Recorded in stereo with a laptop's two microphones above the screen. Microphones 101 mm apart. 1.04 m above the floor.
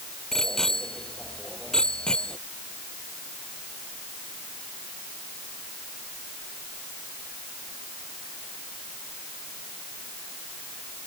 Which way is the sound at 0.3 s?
5° left (ahead or behind).